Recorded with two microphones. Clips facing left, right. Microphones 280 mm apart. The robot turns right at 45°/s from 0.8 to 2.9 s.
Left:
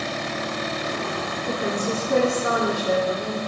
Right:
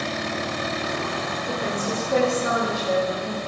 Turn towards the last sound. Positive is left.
turn(degrees=100)